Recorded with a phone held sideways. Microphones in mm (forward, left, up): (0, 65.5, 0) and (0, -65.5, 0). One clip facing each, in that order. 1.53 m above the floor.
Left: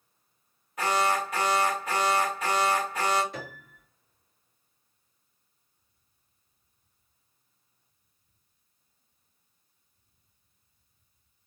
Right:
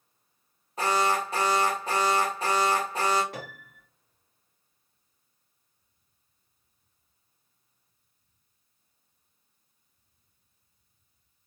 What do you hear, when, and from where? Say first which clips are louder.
0.8 s an alarm: right 1 dB; 30° right (ahead or behind), 1.1 m
3.3 s a piano: even; 70° right (ahead or behind), 1.8 m